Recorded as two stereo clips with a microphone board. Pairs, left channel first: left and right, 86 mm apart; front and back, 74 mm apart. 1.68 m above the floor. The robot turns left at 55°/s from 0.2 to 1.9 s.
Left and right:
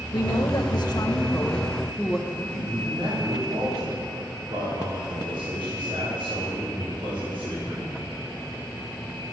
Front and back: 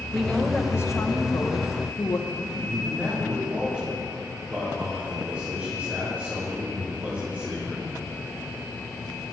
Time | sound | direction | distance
0.1 | a woman speaking | 90° left | 2 m
2.3 | a man speaking | 115° right | 5.5 m